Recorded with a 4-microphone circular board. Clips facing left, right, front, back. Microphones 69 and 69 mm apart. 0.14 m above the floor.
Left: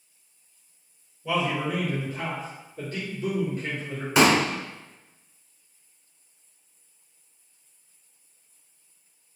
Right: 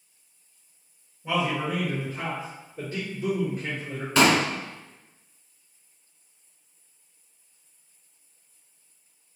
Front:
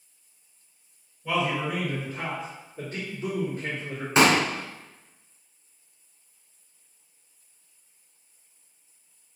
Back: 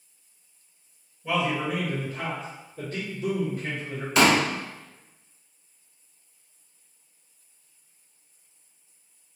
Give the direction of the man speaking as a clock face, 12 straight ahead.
3 o'clock.